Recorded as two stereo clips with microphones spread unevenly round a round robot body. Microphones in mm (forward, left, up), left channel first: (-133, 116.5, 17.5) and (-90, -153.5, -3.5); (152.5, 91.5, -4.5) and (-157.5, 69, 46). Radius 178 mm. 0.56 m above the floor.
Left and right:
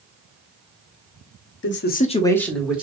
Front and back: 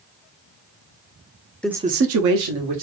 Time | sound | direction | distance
1.6 | a man speaking | 75° left | 0.7 m